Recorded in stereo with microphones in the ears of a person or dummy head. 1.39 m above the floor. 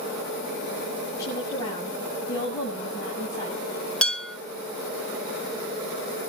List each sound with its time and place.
1.2 s a woman speaking: 20° left (ahead or behind), 7.5 m
4.0 s dishes clattering: 5° left (ahead or behind), 2 m